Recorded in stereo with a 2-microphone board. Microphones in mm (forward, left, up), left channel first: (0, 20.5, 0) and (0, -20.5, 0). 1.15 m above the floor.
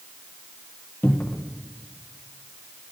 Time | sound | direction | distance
1.0 | a cupboard door | 55° left (ahead or behind) | 0.7 m